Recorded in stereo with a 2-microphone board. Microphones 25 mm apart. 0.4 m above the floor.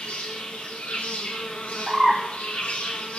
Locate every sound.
0.0 s an insect: 75° left (ahead or behind), 1.5 m
1.9 s a bird: 30° right (ahead or behind), 3.5 m